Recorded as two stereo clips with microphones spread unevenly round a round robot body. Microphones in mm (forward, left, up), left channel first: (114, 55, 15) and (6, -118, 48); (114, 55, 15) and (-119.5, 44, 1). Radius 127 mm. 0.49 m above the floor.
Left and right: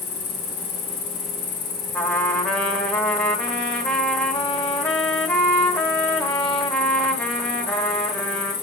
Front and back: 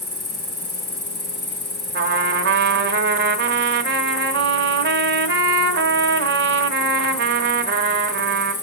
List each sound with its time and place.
0.0 s an insect: 65° left, 2.5 m
1.9 s a trumpet: 140° left, 1.1 m